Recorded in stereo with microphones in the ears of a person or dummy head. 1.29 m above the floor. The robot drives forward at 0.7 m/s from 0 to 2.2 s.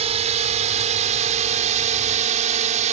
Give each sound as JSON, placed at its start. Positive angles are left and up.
{"t": 0.0, "sound": "a drone", "side_deg": -35}